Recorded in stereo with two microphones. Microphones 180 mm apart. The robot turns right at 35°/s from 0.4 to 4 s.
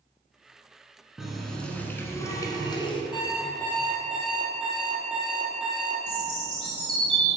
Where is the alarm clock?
155° left, 2 m; by 6.0 s 175° right, 2 m.